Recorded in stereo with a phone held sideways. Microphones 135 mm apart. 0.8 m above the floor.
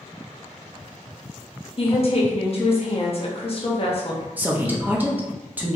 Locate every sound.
1.8 s a woman speaking: 45° left (ahead or behind), 1.2 m
4.4 s a woman speaking: 10° right (ahead or behind), 0.8 m